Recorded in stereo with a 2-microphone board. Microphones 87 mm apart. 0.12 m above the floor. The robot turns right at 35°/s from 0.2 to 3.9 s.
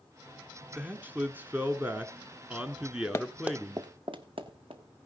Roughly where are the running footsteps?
Left.